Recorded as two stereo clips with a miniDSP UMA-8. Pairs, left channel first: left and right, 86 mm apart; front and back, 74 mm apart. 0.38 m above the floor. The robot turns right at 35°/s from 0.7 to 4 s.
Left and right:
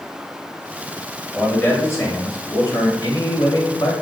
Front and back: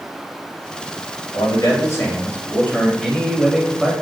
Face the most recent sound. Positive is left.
turn(degrees=110)